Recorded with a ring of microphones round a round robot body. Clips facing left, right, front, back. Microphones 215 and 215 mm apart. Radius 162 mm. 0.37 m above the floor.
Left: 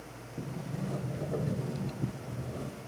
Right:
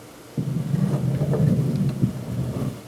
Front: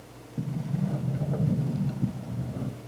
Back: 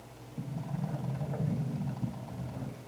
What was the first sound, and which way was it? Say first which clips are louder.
A sliding door: right 13 dB, front 7 dB; 60° right.